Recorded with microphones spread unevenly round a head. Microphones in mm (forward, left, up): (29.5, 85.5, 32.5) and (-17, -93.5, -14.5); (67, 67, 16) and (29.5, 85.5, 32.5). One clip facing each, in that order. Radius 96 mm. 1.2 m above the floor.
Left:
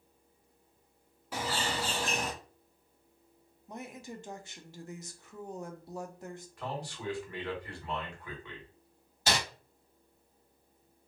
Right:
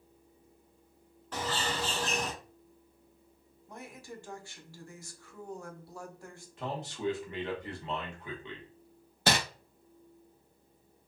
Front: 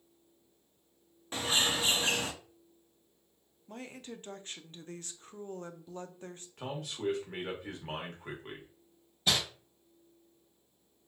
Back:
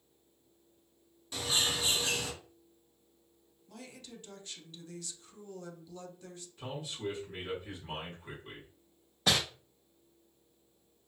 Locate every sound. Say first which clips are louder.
1.3 s a bird: even, front 2 dB; 35° left, 0.5 m
3.7 s a woman speaking: left 3 dB, front 5 dB; straight ahead, 0.5 m
6.6 s a man speaking: right 4 dB, front 2 dB; 40° right, 1.2 m
9.3 s crumpling: right 3 dB, back 1 dB; 150° right, 0.6 m